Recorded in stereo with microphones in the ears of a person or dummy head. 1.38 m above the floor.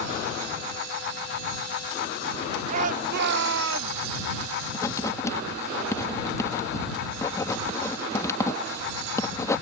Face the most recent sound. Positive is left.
turn(degrees=15)  # may be behind; listen again after turning